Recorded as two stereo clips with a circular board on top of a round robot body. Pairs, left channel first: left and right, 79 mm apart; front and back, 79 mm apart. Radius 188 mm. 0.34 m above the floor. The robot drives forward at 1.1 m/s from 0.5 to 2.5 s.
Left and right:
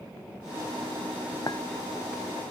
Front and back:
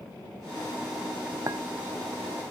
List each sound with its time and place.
1.5 s a clink: 130° left